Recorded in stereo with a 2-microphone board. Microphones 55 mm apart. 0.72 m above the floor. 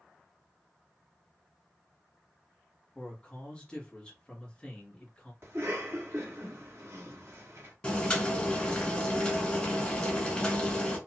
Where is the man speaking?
20° left (ahead or behind), 1.4 m.